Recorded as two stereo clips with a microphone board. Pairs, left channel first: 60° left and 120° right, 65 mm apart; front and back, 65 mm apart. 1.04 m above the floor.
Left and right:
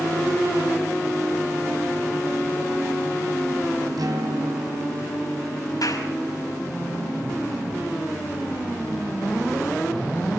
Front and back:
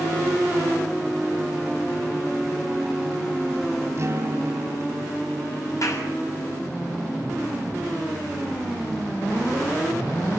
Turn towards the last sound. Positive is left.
turn(degrees=35)